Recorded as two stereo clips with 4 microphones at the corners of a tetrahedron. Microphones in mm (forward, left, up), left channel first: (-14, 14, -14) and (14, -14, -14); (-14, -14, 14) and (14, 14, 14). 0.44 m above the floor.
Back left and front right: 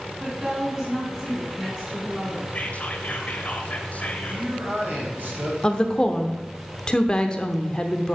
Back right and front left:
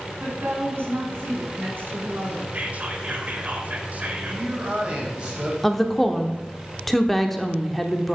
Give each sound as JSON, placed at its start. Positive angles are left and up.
{"t": 0.2, "sound": "a woman speaking", "azimuth_deg": 15, "distance_m": 4.0}
{"t": 2.5, "sound": "whispering", "azimuth_deg": 90, "distance_m": 1.4}
{"t": 4.3, "sound": "a man speaking", "azimuth_deg": -20, "distance_m": 3.0}
{"t": 5.6, "sound": "a woman speaking", "azimuth_deg": 145, "distance_m": 0.8}